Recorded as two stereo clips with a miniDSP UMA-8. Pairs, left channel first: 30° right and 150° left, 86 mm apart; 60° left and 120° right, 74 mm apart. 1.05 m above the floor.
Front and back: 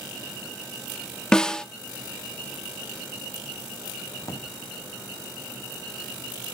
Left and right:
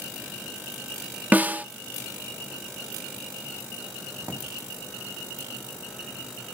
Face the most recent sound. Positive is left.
turn(degrees=-75)